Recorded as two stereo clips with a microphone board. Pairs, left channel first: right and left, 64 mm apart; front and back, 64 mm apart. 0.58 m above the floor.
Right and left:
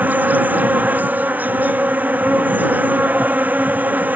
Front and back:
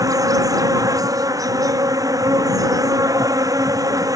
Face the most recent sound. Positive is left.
turn(degrees=155)